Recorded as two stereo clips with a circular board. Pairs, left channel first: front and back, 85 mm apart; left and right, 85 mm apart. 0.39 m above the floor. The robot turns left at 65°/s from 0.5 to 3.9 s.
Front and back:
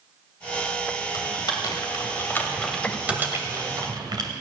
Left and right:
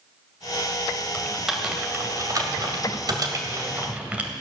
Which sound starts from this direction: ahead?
Typing on a keyboard, at 1.1 s.